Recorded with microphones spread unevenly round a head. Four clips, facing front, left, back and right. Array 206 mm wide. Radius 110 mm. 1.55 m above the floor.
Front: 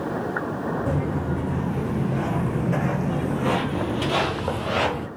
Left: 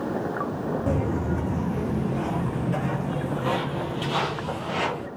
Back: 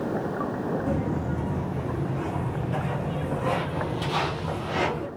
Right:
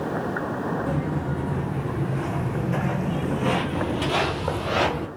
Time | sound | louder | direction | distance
0.9 | footsteps | left 1 dB, front 2 dB | 65° left | 2.5 m